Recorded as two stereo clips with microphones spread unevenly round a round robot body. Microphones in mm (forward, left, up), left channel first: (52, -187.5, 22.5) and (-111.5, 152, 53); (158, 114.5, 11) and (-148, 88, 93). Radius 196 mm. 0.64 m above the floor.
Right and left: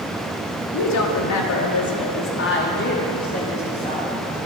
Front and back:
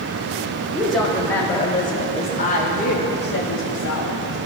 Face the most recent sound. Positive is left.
turn(degrees=10)